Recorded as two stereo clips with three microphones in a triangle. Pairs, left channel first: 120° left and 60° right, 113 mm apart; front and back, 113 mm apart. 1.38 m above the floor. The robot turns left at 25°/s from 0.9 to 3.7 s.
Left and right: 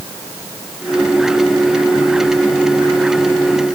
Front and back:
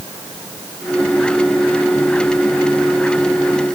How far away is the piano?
No piano in this recording.